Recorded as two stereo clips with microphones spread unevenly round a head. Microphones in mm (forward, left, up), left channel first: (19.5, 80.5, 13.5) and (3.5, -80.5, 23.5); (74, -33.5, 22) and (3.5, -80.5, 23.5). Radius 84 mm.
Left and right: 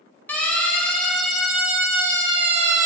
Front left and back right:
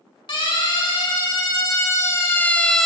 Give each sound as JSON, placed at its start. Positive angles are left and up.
{"t": 0.3, "sound": "a siren", "azimuth_deg": 5, "distance_m": 4.5}